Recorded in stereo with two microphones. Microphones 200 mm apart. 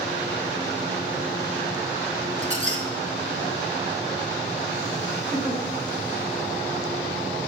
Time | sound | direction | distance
2.4 | a squeak | 40° right (ahead or behind) | 1.2 m
5.3 | a giggle | 10° left (ahead or behind) | 3.5 m